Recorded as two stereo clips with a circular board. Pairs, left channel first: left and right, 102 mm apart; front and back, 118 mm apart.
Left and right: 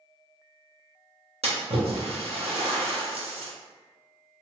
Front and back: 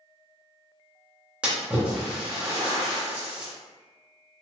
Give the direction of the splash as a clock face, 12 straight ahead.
3 o'clock.